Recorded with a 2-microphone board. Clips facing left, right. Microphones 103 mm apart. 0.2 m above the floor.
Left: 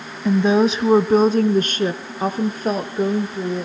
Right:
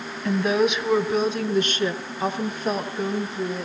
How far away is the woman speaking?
About 1.0 m.